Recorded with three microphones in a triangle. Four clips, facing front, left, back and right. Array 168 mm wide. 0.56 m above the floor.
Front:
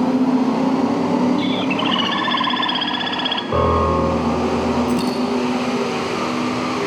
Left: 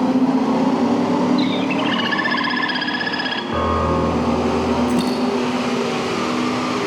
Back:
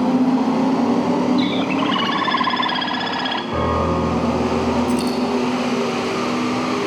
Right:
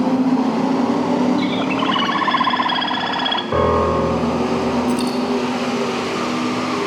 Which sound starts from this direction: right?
A bird, at 1.4 s.